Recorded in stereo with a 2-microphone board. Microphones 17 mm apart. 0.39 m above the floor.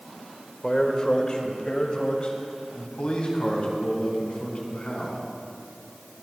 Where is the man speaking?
30° left (ahead or behind), 1.1 m; by 5.2 s 75° left (ahead or behind), 3.5 m.